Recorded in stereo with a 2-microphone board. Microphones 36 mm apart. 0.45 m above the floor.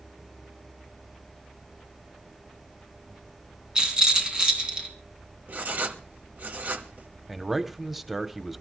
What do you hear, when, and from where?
3.8 s a rattle: 25° right (ahead or behind), 3 m
5.5 s writing: 50° right (ahead or behind), 1.5 m
7.3 s a man speaking: centre (ahead or behind), 1.1 m